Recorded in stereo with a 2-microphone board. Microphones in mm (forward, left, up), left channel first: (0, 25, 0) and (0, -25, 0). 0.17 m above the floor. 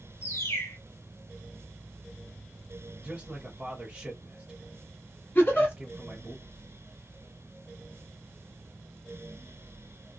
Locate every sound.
0.2 s a bird: 60° left (ahead or behind), 1.1 m
3.0 s a man speaking: 20° right (ahead or behind), 1.6 m
5.3 s a giggle: 45° left (ahead or behind), 2 m